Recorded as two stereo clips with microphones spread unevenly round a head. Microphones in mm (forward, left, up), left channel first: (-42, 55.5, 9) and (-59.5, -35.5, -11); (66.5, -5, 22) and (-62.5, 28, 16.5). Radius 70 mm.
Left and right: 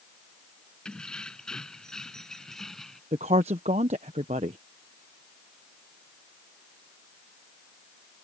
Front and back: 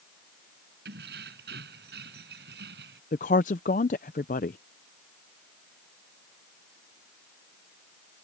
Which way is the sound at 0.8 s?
160° left.